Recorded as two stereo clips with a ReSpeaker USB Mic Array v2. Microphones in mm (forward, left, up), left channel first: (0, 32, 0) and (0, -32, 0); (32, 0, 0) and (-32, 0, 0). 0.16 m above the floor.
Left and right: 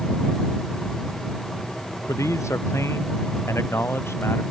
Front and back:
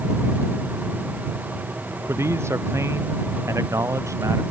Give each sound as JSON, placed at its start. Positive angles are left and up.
{"t": 2.1, "sound": "a man speaking", "azimuth_deg": 130}